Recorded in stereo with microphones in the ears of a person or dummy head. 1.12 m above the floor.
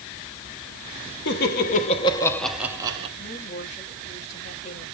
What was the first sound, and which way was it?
Laughter, 50° left (ahead or behind).